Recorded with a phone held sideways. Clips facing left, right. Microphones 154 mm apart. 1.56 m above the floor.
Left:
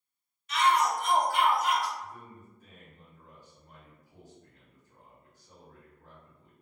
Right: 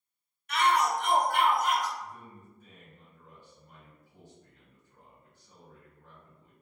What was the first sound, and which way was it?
A shout, 55° right (ahead or behind).